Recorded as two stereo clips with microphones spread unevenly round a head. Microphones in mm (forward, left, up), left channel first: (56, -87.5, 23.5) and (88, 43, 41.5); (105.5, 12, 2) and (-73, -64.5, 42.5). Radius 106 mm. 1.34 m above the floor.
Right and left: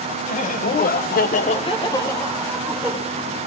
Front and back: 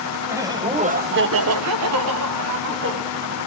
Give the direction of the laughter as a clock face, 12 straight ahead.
3 o'clock.